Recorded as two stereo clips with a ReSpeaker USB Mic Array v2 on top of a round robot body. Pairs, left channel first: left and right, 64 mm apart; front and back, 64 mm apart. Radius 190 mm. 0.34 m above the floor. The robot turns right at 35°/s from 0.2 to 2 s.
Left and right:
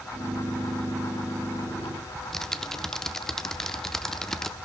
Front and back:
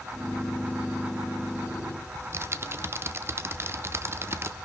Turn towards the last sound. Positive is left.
turn(degrees=170)